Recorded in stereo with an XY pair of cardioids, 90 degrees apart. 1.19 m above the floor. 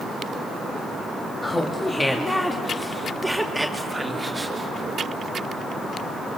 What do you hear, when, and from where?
1.4 s laughter: 25° left, 2 m; by 5.0 s 20° right, 2.5 m